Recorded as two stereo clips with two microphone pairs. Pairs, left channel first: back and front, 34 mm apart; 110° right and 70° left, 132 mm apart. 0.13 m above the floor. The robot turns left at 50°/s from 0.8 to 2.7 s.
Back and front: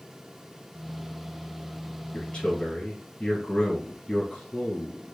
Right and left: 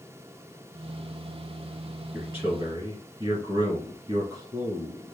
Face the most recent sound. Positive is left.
turn(degrees=115)